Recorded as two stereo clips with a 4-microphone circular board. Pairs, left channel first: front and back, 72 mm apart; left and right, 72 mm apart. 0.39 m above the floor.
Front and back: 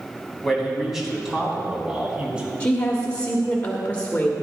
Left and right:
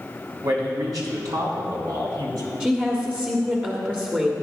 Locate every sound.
0.4 s a man speaking: 90° right, 3.5 m; by 2.5 s 110° right, 4 m
2.6 s a woman speaking: 40° right, 1.3 m